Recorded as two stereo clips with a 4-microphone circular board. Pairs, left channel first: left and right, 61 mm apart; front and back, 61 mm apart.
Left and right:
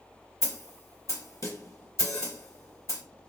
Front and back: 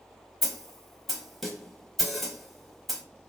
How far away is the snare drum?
About 0.8 m.